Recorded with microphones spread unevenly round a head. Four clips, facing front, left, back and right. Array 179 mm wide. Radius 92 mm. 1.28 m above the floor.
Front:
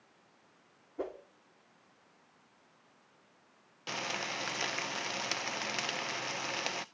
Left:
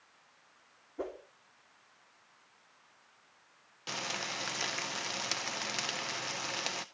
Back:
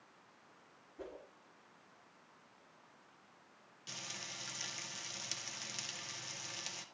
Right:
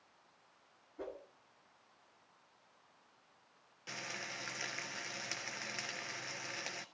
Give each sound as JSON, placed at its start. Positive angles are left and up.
{"t": 1.0, "sound": "a whoosh", "azimuth_deg": 35, "distance_m": 2.5}
{"t": 3.9, "sound": "frying", "azimuth_deg": 25, "distance_m": 0.7}